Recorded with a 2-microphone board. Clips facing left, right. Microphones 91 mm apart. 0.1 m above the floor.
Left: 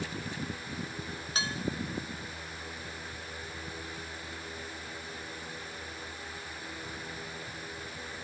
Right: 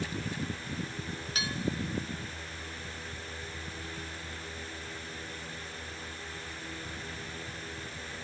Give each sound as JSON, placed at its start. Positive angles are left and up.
{"t": 1.4, "sound": "dishes clattering", "side_deg": 30, "distance_m": 0.9}